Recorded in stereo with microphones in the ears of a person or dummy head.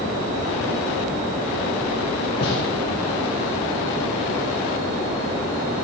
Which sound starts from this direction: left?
A gunshot, at 2.4 s.